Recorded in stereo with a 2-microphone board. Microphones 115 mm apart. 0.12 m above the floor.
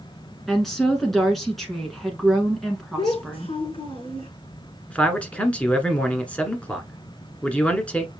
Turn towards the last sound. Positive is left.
turn(degrees=10)  # may be behind; listen again after turning